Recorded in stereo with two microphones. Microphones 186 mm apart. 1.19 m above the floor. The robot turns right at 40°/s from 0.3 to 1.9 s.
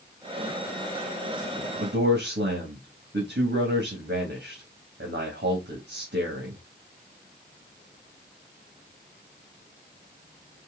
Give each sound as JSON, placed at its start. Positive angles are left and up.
{"t": 1.8, "sound": "a man speaking", "side_deg": -85, "distance_m": 1.6}